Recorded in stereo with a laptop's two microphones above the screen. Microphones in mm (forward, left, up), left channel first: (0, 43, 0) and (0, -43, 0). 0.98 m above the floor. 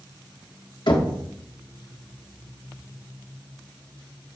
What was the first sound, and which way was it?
Knocking, 70° left (ahead or behind).